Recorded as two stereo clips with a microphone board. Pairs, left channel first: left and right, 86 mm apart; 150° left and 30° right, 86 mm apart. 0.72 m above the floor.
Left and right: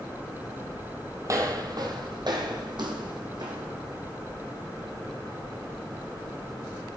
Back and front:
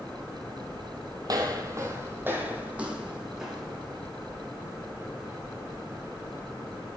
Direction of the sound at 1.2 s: 50° right.